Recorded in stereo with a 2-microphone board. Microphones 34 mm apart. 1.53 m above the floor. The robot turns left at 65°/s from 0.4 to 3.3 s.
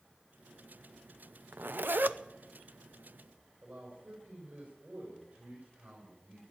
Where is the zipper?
80° right, 0.6 m; by 2.2 s 125° right, 0.6 m.